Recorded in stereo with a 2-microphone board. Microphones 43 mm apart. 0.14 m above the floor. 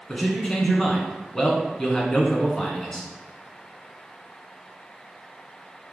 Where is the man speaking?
20° left (ahead or behind), 1.1 m.